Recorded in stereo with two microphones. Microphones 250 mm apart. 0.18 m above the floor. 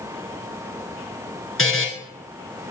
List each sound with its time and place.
1.6 s a buzzer: 60° left (ahead or behind), 2.5 m